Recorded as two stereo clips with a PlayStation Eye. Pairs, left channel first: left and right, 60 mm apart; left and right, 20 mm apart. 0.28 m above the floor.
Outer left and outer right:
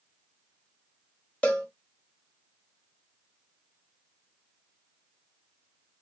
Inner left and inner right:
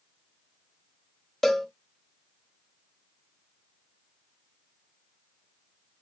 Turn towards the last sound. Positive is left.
turn(degrees=20)  # may be behind; listen again after turning